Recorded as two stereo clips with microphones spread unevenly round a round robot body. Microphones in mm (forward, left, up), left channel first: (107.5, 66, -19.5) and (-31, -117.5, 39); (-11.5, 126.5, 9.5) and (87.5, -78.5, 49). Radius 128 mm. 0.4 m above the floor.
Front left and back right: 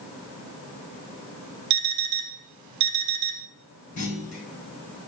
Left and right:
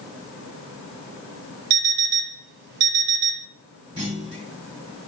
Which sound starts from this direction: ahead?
A clunk, at 4.0 s.